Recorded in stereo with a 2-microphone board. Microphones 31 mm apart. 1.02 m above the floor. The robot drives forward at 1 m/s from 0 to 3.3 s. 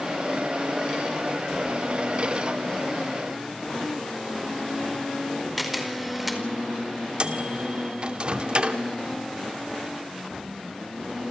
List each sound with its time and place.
5.6 s a camera shutter: 5° right (ahead or behind), 4.5 m
7.2 s a microwave: 35° right (ahead or behind), 2.5 m